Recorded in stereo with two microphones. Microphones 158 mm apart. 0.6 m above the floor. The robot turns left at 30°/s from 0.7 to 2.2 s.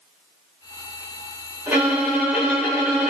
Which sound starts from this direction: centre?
A violin, at 1.7 s.